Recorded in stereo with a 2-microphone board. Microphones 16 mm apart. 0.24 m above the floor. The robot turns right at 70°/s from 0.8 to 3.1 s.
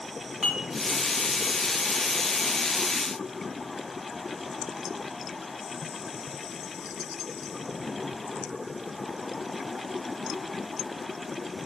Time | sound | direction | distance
0.4 | dishes clattering | 30° right (ahead or behind) | 1.5 m